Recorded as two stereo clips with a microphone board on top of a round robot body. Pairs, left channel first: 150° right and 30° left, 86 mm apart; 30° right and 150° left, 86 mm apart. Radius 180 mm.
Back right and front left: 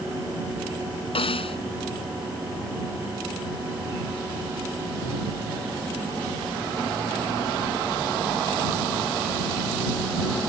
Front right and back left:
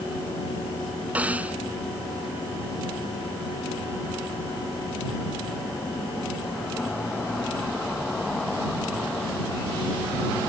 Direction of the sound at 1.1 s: 135° right.